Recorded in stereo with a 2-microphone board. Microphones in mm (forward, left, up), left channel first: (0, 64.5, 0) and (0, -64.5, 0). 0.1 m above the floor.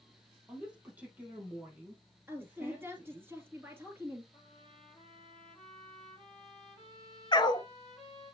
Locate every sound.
0.5 s a woman speaking: 10° right (ahead or behind), 3 m
2.3 s a woman speaking: 15° right (ahead or behind), 1.8 m
4.3 s a trumpet: 5° left (ahead or behind), 4 m
7.3 s a dog barking: 35° left (ahead or behind), 0.7 m